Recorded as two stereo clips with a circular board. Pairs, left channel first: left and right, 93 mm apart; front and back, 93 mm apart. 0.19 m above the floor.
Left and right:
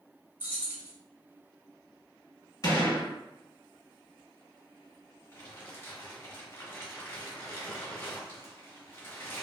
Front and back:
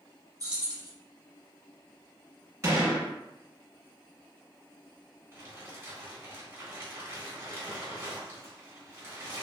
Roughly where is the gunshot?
Behind left.